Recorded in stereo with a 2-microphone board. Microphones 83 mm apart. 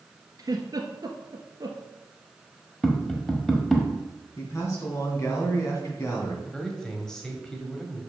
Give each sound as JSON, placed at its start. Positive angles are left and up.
{"t": 0.4, "sound": "a giggle", "side_deg": -45, "distance_m": 1.3}
{"t": 2.8, "sound": "tapping", "side_deg": 5, "distance_m": 1.2}
{"t": 4.4, "sound": "a man speaking", "side_deg": 35, "distance_m": 3.0}
{"t": 6.5, "sound": "a man speaking", "side_deg": 10, "distance_m": 1.7}